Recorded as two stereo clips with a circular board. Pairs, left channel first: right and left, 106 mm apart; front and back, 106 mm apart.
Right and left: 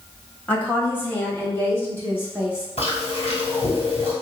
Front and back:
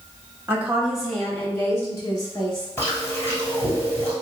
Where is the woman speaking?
140° right, 1.0 m; by 2.7 s 25° right, 1.5 m.